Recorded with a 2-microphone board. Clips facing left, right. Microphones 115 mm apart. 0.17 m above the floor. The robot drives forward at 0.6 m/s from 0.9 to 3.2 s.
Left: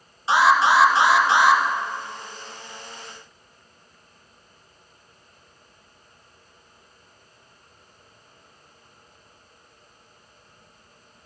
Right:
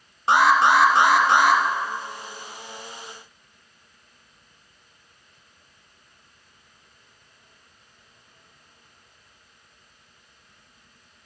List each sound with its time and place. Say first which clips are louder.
0.3 s an alarm: even; 60° right (ahead or behind), 1.6 m; by 1.6 s 55° right (ahead or behind), 1.7 m